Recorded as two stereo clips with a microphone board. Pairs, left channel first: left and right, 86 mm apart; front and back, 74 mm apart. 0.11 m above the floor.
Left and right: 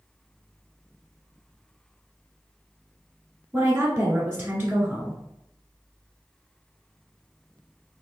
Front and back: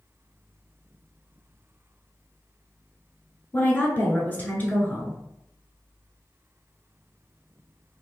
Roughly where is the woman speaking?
Ahead right.